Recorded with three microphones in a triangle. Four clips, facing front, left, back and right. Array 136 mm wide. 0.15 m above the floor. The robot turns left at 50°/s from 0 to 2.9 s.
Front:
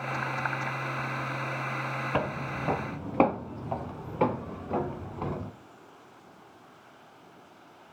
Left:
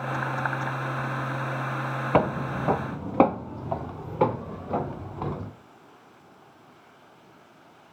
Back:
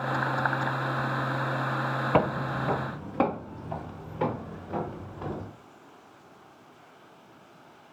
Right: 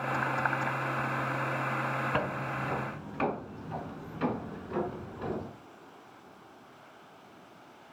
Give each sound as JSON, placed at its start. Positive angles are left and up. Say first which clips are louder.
{"t": 2.1, "sound": "footsteps", "louder": "left 8 dB, back 7 dB", "azimuth_deg": 120, "distance_m": 0.6}